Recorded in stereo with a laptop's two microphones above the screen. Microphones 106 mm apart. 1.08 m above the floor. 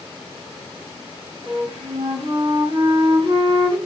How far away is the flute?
About 2.5 m.